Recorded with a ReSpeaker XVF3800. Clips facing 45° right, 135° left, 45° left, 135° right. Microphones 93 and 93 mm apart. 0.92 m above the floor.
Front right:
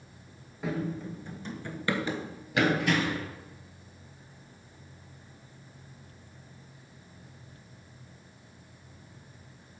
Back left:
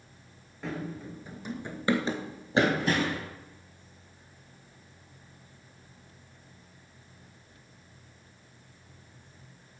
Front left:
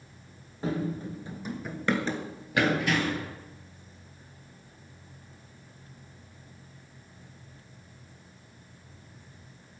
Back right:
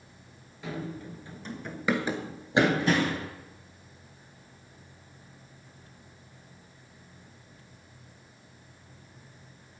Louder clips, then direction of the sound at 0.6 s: Front right 4 dB, front left 6 dB; 35° left.